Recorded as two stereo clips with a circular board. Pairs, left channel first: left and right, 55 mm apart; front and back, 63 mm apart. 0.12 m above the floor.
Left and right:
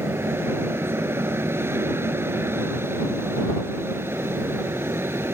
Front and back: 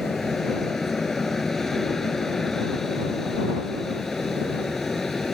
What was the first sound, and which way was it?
An aircraft, 85° right.